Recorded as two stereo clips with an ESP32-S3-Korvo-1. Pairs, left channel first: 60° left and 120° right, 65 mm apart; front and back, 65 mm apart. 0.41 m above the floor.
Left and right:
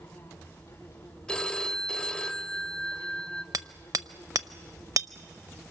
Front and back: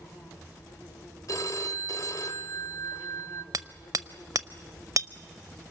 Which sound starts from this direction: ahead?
A phone ringing, at 1.3 s.